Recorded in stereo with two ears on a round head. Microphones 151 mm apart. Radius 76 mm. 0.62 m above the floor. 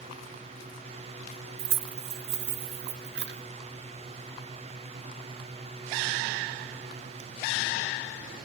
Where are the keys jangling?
65° right (ahead or behind), 0.6 m; by 3.4 s 70° right (ahead or behind), 1.5 m.